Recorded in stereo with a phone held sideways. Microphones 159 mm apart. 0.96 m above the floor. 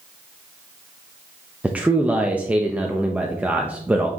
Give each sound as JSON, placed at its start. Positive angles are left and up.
{"t": 1.6, "sound": "a man speaking", "side_deg": -10, "distance_m": 0.7}